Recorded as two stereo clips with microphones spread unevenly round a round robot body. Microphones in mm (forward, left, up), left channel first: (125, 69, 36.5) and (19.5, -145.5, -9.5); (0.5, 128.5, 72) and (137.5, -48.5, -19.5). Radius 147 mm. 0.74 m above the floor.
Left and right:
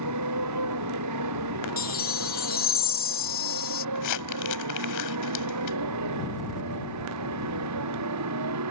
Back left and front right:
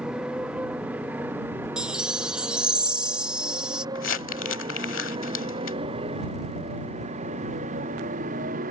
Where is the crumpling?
95° left.